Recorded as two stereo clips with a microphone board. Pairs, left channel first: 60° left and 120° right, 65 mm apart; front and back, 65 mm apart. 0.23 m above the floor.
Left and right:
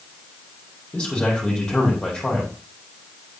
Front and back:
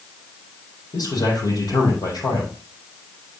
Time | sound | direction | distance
0.9 | a man speaking | 20° right | 7 m